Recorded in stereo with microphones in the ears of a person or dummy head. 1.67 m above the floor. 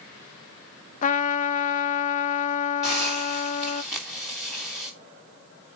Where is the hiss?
Centre (ahead or behind), 3 m.